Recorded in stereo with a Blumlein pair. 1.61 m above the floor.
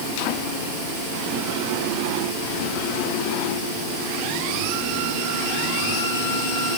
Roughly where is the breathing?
I don't hear breathing.